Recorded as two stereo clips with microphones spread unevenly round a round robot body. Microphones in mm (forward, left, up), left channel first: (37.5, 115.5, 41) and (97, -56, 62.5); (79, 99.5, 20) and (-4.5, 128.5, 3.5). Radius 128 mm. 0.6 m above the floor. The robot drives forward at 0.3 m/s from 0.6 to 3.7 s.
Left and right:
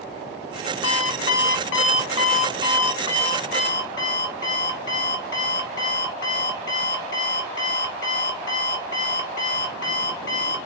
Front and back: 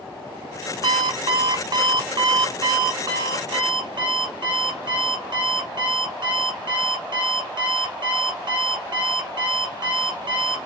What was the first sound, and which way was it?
An alarm clock, 125° left.